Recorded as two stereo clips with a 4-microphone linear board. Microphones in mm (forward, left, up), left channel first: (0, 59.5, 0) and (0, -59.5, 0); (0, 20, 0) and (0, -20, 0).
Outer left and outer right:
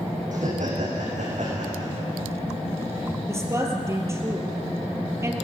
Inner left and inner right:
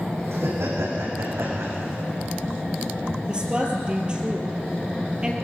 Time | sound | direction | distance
0.3 | laughter | 80° right | 8 m
3.3 | a woman speaking | 20° right (ahead or behind) | 3 m